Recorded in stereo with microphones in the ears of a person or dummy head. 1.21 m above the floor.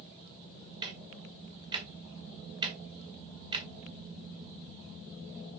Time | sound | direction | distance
0.8 | ticking | 25° right (ahead or behind) | 1.6 m